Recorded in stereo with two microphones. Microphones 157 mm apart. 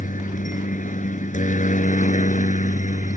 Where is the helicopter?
55° left (ahead or behind); by 3.2 s 50° left (ahead or behind).